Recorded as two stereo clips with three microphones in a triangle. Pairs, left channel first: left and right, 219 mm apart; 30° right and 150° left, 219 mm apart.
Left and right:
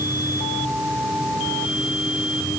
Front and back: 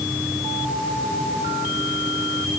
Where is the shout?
No shout in this recording.